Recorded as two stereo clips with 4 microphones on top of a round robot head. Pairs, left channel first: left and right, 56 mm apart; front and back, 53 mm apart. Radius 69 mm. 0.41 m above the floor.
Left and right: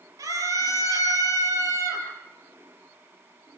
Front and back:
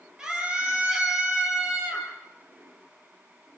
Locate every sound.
0.2 s a scream: 100° right, 9 m